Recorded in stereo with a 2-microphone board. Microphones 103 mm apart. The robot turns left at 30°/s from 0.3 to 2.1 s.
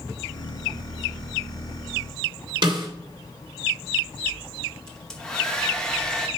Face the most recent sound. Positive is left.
turn(degrees=5)  # may be behind; listen again after turning